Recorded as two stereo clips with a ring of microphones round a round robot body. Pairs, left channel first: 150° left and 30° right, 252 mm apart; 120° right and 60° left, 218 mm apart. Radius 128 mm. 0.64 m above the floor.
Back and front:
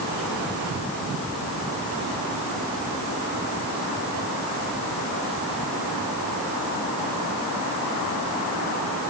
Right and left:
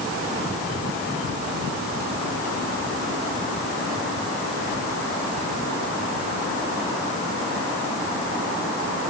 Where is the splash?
No splash in this recording.